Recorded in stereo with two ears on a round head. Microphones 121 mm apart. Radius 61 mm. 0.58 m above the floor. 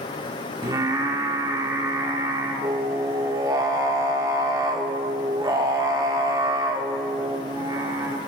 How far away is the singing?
About 1.4 m.